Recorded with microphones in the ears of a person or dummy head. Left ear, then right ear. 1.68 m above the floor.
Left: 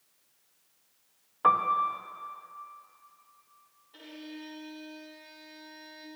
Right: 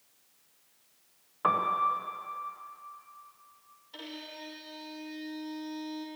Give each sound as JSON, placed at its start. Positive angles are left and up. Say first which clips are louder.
{"t": 1.4, "sound": "a piano", "louder": "left 2 dB", "side_deg": 20, "distance_m": 0.8}
{"t": 3.9, "sound": "a violin", "louder": "right 2 dB", "side_deg": -80, "distance_m": 3.0}